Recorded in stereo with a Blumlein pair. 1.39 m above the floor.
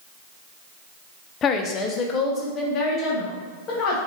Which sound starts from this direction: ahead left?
A woman speaking, at 1.4 s.